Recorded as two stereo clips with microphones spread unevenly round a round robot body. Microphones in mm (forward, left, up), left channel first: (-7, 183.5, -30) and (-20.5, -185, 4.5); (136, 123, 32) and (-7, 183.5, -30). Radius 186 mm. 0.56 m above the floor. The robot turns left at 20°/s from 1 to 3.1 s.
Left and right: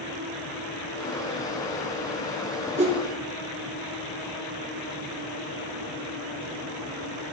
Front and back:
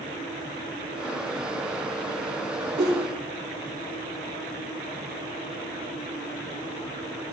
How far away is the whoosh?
About 4 m.